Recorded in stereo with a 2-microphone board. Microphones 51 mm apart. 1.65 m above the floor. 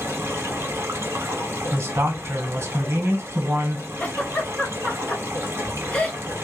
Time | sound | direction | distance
0.0 | running water | 55° right (ahead or behind) | 0.9 m
1.7 | a man speaking | 70° right (ahead or behind) | 1.0 m
4.0 | a giggle | 25° left (ahead or behind) | 0.7 m